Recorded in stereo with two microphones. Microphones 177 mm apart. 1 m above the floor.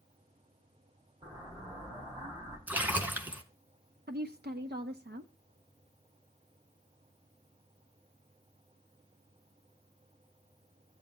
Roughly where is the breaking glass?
I don't hear breaking glass.